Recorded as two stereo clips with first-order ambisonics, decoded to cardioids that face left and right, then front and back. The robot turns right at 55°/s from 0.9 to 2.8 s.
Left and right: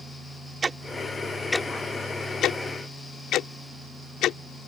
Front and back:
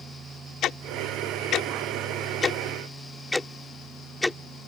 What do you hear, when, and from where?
0.6 s ticking: 25° right; by 4.4 s 80° left